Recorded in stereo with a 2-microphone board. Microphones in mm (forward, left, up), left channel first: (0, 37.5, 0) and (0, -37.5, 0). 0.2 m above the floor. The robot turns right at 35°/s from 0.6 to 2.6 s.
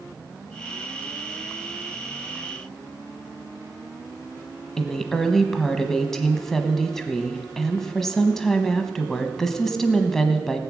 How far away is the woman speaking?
About 1.1 m.